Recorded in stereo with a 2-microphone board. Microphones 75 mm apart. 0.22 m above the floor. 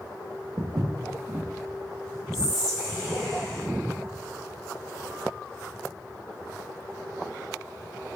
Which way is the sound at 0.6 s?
55° right (ahead or behind).